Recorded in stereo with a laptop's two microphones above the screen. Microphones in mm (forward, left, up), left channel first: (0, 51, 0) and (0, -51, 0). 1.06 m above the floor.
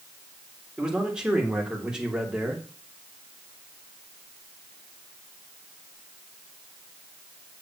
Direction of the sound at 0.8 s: 10° right (ahead or behind).